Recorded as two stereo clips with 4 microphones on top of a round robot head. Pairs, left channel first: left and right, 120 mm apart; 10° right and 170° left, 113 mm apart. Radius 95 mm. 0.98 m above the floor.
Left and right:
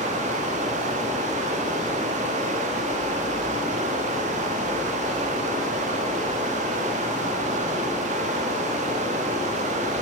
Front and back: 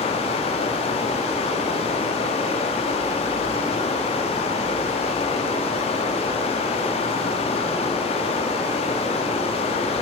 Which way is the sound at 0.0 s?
55° right.